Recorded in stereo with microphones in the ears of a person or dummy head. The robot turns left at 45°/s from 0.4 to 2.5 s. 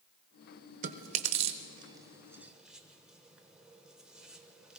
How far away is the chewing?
About 0.7 m.